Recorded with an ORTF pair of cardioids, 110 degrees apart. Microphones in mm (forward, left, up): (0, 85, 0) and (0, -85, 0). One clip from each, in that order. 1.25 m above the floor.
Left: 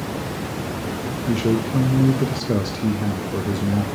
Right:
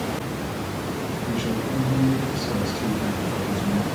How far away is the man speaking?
About 0.8 m.